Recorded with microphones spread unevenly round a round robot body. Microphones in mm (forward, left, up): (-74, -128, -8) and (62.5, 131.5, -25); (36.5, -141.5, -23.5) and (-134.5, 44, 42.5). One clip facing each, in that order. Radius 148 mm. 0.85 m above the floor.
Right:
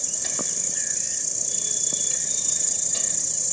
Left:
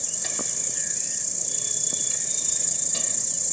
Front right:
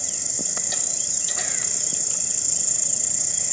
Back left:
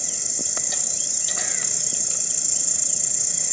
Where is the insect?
165° right.